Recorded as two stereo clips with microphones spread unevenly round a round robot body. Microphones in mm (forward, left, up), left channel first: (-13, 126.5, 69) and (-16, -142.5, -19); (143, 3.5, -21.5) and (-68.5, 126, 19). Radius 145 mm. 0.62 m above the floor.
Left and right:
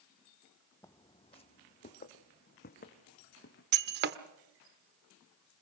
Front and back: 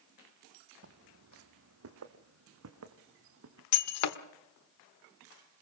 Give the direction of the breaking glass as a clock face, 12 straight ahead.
1 o'clock.